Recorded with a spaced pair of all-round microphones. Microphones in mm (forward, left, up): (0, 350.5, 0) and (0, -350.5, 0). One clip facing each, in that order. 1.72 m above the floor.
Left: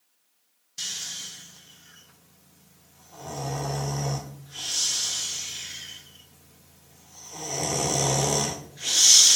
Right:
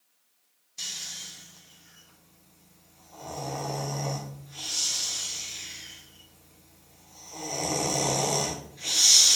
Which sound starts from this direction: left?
Snoring, at 0.8 s.